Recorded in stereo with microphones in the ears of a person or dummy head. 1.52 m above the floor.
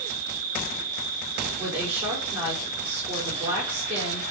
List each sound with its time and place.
0.0 s an insect: 45° right (ahead or behind), 2 m
1.6 s a woman speaking: 35° right (ahead or behind), 4 m